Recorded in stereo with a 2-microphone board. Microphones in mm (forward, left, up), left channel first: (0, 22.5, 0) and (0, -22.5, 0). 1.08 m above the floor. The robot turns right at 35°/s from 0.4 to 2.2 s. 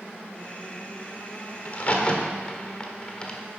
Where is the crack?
40° left (ahead or behind), 1.5 m; by 3.4 s 20° left (ahead or behind), 1.5 m.